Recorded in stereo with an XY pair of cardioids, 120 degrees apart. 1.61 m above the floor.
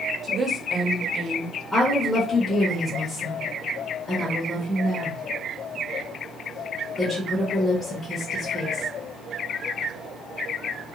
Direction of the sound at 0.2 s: 40° right.